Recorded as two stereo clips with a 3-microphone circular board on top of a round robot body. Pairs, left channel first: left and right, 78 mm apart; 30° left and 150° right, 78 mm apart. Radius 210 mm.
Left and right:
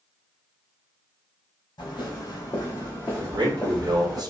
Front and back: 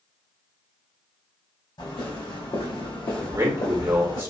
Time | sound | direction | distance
1.8 | footsteps | 55° left | 1.6 m
3.2 | a man speaking | 110° right | 1.3 m